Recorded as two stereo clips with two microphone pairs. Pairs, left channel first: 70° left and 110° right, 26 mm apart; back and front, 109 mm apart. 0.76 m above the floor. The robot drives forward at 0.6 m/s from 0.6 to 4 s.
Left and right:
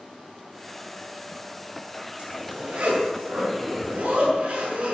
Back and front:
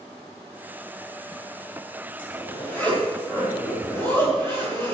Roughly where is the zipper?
Right.